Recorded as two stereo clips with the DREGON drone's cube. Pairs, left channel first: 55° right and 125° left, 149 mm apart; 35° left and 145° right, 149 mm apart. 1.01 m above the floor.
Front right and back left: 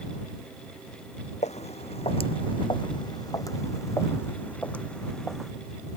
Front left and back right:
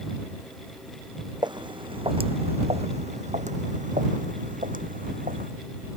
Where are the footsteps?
90° right; by 5.5 s 145° right.